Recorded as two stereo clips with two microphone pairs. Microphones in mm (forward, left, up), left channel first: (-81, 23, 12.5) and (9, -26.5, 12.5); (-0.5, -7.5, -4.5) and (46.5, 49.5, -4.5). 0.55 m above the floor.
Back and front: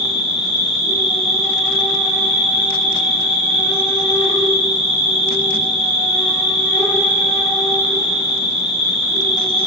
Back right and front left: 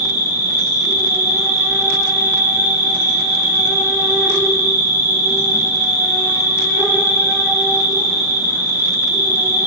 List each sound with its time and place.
0.0 s an insect: 65° left, 1.3 m